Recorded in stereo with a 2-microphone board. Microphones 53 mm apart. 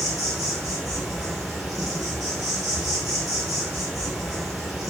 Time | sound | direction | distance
0.0 | an insect | 10° right (ahead or behind) | 1.4 m